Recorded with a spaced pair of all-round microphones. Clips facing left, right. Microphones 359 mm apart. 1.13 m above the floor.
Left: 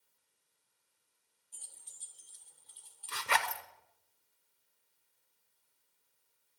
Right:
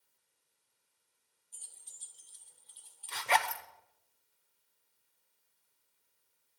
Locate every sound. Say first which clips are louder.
1.5 s keys jangling: left 2 dB; 70° left (ahead or behind), 1.5 m; by 3.4 s 55° left (ahead or behind), 3 m
3.1 s a zipper: right 4 dB; 15° left (ahead or behind), 1.0 m